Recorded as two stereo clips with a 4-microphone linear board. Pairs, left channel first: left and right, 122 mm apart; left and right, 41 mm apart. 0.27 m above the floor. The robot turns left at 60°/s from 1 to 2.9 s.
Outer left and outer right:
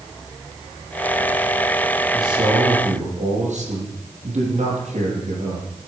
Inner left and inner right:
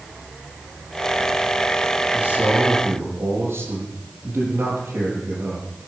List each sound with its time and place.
2.1 s a man speaking: 25° right, 8.5 m; by 5.7 s 75° right, 8.5 m